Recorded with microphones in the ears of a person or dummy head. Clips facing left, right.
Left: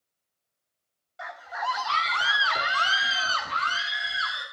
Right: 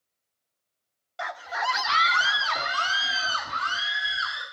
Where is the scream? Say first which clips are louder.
Right 3 dB; 70° right (ahead or behind), 0.7 m; by 4.4 s 40° left (ahead or behind), 1.8 m.